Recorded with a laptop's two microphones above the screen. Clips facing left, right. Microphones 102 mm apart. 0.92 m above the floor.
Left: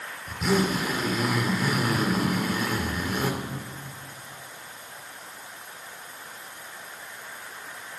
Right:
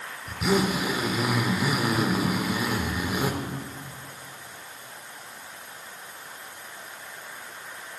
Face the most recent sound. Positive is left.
turn(degrees=-10)  # may be behind; listen again after turning